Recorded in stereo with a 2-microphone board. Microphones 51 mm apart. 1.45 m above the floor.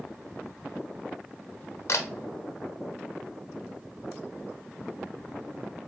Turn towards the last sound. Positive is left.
turn(degrees=60)  # may be behind; listen again after turning